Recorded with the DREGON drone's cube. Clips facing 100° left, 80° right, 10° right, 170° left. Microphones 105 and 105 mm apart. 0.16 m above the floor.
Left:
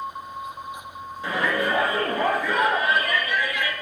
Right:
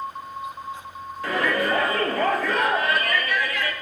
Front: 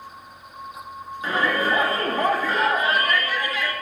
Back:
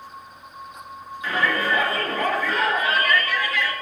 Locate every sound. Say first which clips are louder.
1.2 s a shout: right 1 dB, front 1 dB; 30° left, 3 m